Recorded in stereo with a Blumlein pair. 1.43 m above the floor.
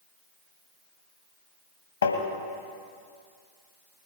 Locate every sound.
2.0 s tapping: 65° left, 1.6 m